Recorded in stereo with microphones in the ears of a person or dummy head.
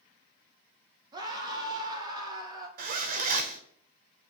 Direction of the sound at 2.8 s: 45° right (ahead or behind).